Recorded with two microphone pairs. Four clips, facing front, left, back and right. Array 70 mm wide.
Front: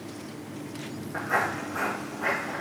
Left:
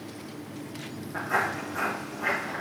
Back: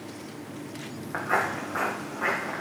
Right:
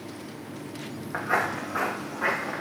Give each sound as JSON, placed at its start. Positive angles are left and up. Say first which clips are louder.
{"t": 1.1, "sound": "footsteps", "louder": "right 1 dB, back 1 dB", "azimuth_deg": -140, "distance_m": 3.0}